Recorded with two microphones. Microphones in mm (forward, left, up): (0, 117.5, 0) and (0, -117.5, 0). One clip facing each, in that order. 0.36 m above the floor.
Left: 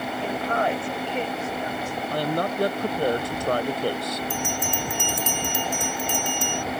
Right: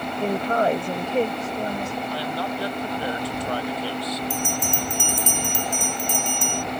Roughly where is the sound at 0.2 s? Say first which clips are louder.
Right 5 dB; right.